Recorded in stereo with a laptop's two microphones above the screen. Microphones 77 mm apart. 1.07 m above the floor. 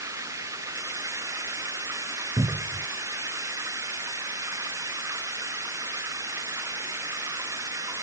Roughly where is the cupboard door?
Right.